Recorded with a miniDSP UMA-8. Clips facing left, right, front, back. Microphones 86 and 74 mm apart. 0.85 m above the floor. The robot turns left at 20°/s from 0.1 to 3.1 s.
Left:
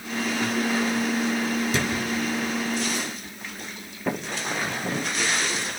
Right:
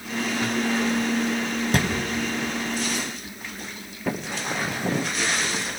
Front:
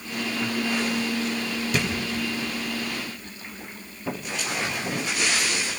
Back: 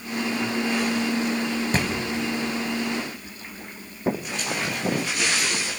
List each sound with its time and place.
1.7 s a thud: 125° right, 3 m; by 1.9 s 130° right, 3 m
4.1 s footsteps: 170° left, 1.1 m; by 5.7 s 145° right, 1.4 m